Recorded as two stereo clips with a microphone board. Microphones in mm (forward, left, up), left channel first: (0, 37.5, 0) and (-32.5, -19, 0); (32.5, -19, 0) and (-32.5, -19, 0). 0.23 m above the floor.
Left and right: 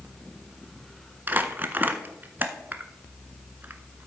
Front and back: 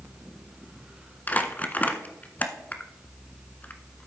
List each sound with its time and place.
1.3 s crumpling: 60° right, 0.6 m